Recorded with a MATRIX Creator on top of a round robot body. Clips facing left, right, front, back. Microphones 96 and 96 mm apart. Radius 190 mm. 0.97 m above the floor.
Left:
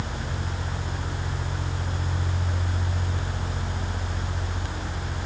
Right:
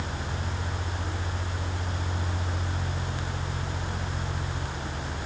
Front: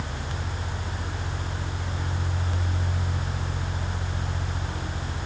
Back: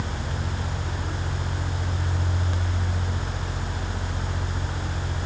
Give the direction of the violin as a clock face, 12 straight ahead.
I don't hear a violin.